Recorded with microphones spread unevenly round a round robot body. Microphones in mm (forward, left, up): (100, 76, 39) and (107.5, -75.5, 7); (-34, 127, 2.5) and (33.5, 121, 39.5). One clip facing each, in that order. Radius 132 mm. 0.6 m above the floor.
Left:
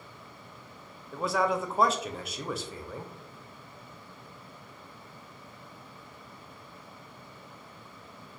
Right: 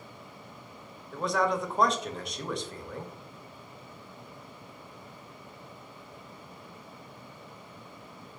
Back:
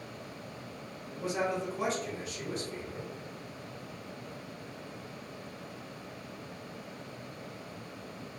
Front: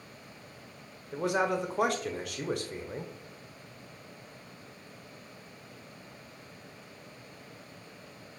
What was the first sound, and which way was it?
A man speaking, 10° right.